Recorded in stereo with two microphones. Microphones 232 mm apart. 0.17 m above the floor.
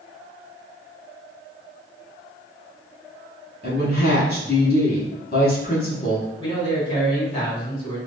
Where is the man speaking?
25° left (ahead or behind), 1.8 m.